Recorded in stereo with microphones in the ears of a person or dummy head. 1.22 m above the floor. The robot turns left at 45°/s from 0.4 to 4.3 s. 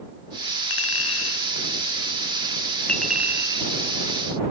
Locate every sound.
0.7 s a clink: 75° left (ahead or behind); by 3.7 s 30° right (ahead or behind)